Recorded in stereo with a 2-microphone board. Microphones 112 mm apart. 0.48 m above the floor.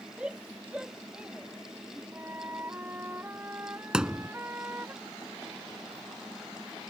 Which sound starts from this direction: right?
A flute, at 2.1 s.